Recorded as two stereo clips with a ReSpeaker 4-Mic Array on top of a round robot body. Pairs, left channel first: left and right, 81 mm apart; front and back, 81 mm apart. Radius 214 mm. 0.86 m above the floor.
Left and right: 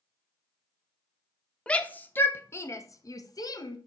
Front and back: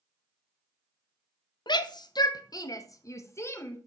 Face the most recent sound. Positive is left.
turn(degrees=60)